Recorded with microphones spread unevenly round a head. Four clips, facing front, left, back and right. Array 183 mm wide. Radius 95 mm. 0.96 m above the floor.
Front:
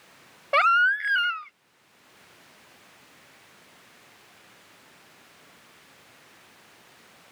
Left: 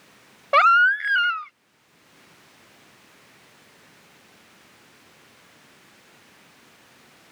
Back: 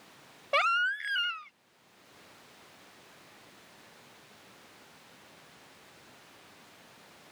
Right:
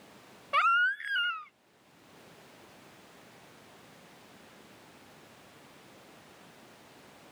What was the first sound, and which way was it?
A baby crying, 75° left.